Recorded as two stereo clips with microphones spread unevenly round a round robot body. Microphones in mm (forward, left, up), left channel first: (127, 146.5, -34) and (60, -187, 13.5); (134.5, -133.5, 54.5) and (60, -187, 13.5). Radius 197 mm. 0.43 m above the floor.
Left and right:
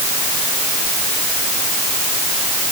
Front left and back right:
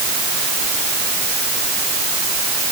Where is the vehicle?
I don't hear a vehicle.